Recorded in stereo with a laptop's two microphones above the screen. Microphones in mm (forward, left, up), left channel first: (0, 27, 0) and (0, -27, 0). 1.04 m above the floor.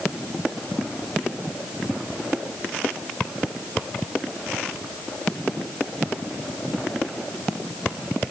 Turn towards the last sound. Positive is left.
No sound to turn to.